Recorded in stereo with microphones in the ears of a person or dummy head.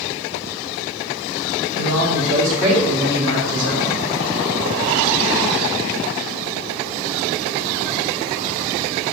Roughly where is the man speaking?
Right.